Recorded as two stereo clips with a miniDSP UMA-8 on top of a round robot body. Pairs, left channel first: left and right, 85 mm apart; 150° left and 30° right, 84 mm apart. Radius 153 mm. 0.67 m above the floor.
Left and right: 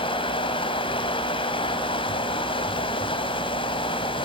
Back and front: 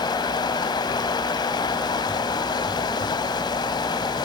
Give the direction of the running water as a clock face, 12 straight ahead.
8 o'clock.